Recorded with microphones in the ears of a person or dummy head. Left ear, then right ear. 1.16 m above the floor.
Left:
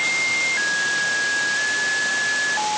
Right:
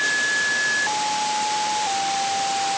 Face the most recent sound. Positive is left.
No sound to turn to.